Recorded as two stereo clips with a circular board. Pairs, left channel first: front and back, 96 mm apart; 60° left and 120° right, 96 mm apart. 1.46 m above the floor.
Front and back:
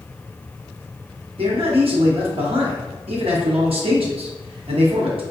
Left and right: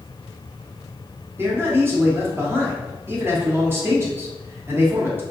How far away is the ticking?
I don't hear ticking.